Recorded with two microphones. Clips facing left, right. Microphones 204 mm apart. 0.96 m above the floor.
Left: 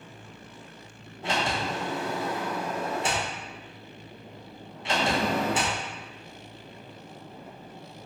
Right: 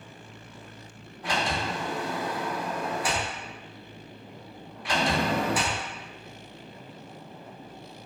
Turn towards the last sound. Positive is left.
turn(degrees=25)  # may be behind; listen again after turning